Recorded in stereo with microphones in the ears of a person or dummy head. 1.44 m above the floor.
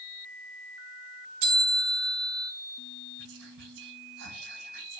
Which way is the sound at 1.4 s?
65° right (ahead or behind).